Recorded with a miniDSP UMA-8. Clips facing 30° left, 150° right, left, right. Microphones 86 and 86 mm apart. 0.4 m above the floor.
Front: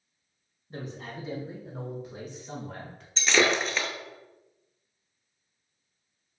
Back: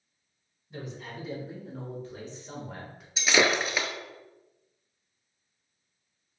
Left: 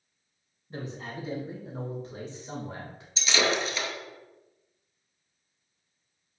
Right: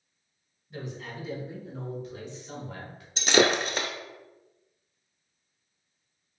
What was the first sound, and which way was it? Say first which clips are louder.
A man speaking: front 1 dB, left 1 dB; 60° left.